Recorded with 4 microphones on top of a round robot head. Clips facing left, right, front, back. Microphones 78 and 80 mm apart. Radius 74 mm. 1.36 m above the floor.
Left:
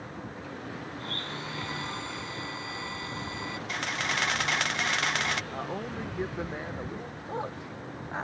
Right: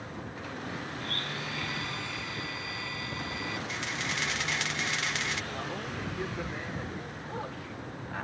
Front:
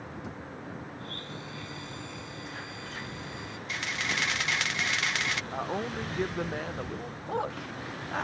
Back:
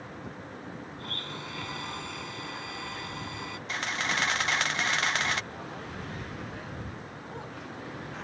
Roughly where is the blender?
Behind left.